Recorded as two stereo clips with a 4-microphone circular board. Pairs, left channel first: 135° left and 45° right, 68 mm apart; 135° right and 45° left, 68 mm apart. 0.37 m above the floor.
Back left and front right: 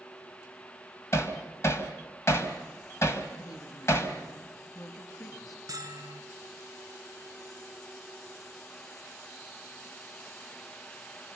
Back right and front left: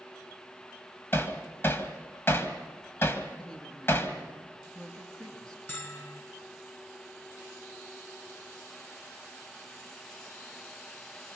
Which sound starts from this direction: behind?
Hammering, at 1.1 s.